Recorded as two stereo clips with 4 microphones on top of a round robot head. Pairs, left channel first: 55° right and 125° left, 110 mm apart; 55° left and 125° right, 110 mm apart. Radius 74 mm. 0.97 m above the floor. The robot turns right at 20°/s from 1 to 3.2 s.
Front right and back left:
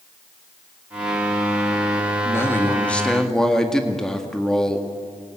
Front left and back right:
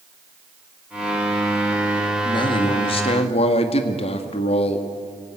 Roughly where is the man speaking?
Ahead.